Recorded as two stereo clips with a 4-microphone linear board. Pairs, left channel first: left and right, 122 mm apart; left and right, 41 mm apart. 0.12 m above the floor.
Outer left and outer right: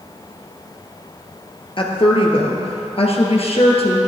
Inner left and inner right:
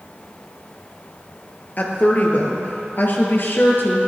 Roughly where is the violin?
No violin in this recording.